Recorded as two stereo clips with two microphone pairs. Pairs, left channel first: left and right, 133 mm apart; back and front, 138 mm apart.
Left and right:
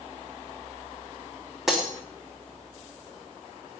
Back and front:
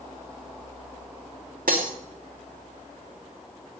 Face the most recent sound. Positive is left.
turn(degrees=0)